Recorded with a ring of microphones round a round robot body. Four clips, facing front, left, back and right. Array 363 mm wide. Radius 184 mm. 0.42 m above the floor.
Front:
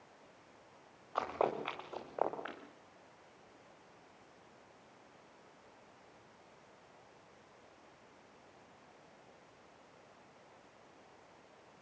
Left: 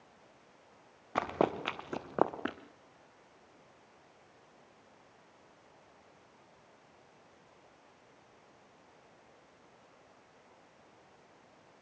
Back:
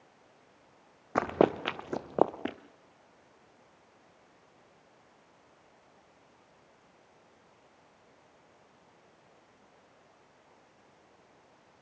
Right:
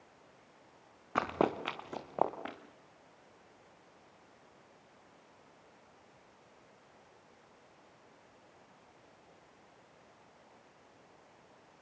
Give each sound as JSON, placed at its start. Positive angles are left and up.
{"t": 1.1, "sound": "running footsteps", "azimuth_deg": -170, "distance_m": 1.9}